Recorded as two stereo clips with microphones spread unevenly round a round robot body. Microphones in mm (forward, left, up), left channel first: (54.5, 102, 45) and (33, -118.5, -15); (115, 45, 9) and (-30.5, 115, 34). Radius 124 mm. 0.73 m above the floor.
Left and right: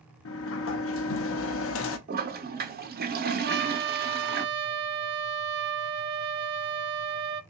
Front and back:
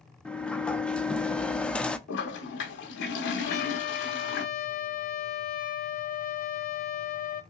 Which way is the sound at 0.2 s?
55° left.